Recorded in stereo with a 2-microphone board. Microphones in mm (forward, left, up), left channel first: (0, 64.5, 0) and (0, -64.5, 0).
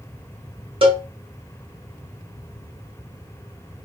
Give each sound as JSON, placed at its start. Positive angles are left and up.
{"t": 0.8, "sound": "a cowbell", "side_deg": -45, "distance_m": 0.7}